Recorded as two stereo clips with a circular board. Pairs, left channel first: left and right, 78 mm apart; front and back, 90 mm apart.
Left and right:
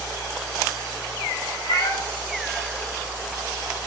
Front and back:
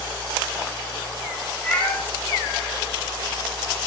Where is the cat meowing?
70° left, 4 m.